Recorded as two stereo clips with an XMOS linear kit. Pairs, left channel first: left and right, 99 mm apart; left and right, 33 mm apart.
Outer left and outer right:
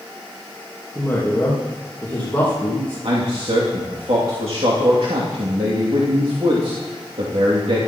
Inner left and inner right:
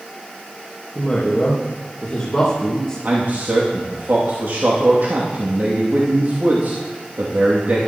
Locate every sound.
0.9 s a woman speaking: 20° left (ahead or behind), 3 m
3.0 s a man speaking: 70° right (ahead or behind), 2.5 m